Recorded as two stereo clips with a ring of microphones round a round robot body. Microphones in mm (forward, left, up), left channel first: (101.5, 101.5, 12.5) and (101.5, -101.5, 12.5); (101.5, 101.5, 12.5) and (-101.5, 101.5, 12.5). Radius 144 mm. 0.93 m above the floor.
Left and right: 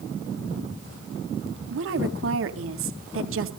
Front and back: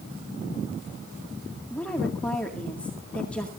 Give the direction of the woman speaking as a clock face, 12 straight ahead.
3 o'clock.